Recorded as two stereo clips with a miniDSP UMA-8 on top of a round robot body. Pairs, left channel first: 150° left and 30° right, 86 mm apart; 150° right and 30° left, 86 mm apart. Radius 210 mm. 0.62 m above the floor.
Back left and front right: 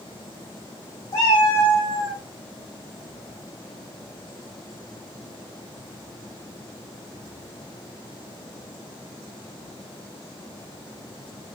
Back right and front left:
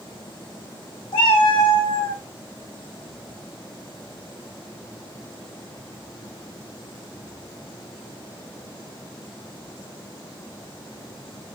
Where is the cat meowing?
165° right, 2 m; by 2.2 s 175° right, 3 m.